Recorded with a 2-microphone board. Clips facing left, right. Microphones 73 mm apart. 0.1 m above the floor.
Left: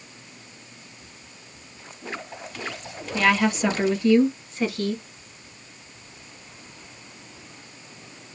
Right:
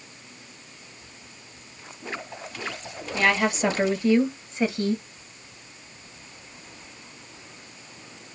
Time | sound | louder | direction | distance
3.1 | a woman speaking | left 2 dB | 20° right (ahead or behind) | 2 m